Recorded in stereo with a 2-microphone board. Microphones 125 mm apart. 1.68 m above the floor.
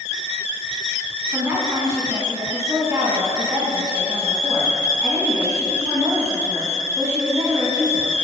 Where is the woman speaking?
20° right (ahead or behind), 2.0 m.